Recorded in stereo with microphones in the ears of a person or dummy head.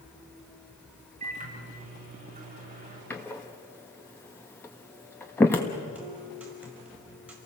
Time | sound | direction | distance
1.2 | a microwave | 40° right (ahead or behind) | 7.5 m
3.1 | a door slam | 15° left (ahead or behind) | 1.3 m
6.0 | a guitar | 5° right (ahead or behind) | 5.5 m